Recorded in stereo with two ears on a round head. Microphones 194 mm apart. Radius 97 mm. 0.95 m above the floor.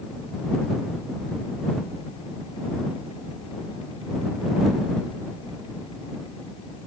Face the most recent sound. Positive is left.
No sound to turn to.